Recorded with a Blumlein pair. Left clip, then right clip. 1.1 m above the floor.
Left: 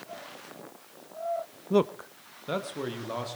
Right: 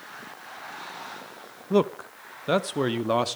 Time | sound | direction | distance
1.7 | a man speaking | 5° right | 0.8 m